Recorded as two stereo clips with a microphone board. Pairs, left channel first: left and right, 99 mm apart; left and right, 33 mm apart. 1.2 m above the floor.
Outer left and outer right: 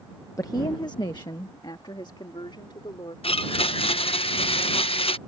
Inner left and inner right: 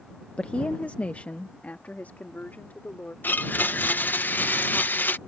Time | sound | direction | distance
0.4 | a woman speaking | 35° left (ahead or behind) | ?
3.2 | a blender | 70° left (ahead or behind) | ?